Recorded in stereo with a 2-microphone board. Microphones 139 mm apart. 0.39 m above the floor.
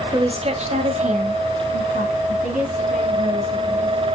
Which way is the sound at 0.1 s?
30° right (ahead or behind).